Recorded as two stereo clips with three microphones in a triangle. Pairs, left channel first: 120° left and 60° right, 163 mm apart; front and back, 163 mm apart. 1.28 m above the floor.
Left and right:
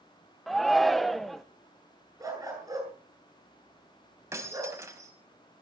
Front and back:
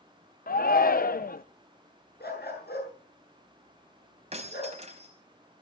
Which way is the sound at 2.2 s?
10° left.